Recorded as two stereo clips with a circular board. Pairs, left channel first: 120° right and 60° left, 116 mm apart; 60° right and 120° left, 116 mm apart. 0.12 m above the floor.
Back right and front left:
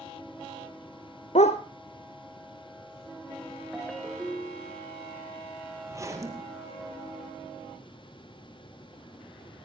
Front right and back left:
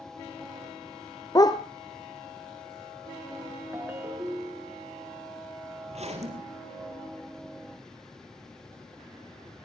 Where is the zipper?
120° left, 3.5 m.